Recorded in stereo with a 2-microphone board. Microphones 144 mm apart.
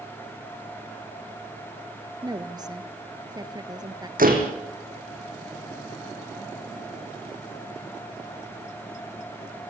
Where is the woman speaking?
30° right (ahead or behind), 2 m.